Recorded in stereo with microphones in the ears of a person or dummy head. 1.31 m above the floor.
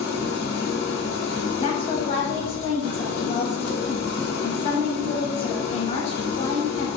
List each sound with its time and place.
0.0 s an engine running: 60° left (ahead or behind), 0.8 m
1.6 s a woman speaking: 40° left (ahead or behind), 0.6 m